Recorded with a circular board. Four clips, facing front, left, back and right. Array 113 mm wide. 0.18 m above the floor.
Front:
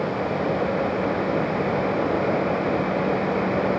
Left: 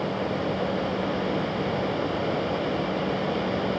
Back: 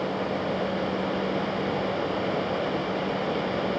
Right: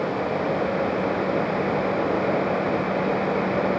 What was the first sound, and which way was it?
Only background noise.